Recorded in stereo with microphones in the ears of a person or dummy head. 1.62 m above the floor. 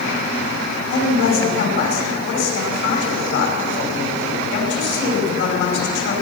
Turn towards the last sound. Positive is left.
turn(degrees=75)  # may be behind; listen again after turning